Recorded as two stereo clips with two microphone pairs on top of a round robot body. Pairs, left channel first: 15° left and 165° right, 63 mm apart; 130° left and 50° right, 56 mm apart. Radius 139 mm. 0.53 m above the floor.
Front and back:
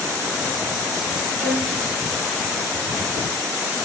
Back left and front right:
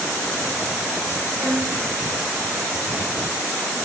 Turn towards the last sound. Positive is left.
turn(degrees=-70)